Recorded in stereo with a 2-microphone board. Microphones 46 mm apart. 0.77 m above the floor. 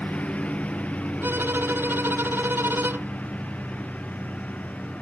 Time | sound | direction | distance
0.0 | a lawn mower | 30° left (ahead or behind) | ?
1.2 | a violin | 55° right (ahead or behind) | ?